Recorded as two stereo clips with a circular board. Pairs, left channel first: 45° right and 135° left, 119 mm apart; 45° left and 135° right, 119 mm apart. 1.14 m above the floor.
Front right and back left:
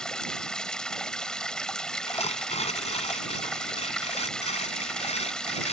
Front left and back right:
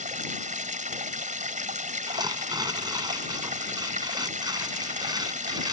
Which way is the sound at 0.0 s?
130° right.